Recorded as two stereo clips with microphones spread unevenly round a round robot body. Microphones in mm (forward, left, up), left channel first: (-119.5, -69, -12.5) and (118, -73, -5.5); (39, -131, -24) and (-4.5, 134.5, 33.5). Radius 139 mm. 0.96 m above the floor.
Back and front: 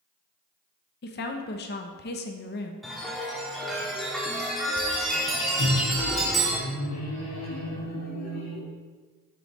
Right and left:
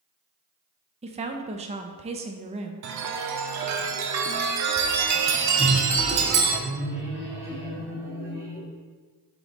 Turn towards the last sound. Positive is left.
turn(degrees=-175)